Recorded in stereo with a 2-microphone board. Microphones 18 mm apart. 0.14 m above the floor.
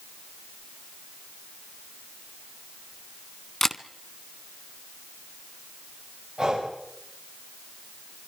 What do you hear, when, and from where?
3.6 s a camera shutter: 15° left (ahead or behind), 0.9 m
6.4 s breathing: 35° right (ahead or behind), 8 m